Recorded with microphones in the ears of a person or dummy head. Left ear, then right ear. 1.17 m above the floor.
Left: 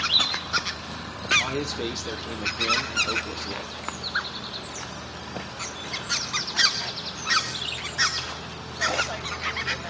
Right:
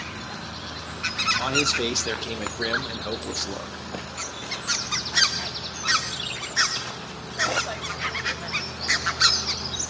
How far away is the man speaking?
About 0.6 m.